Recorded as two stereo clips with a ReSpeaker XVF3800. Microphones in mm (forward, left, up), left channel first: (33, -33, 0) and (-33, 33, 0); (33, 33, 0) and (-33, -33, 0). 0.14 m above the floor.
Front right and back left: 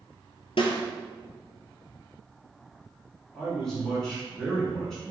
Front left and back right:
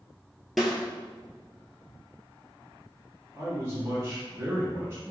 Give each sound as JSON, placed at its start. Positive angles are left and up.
{"t": 0.6, "sound": "a snare drum", "azimuth_deg": -45, "distance_m": 0.9}
{"t": 3.3, "sound": "a man speaking", "azimuth_deg": -120, "distance_m": 1.3}